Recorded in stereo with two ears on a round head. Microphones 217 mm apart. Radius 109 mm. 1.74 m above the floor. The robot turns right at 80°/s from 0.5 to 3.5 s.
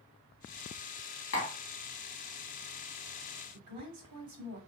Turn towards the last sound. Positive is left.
turn(degrees=-80)